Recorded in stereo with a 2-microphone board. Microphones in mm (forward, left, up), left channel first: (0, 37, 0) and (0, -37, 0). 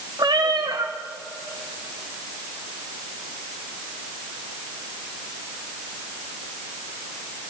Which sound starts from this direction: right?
A cat meowing, at 0.2 s.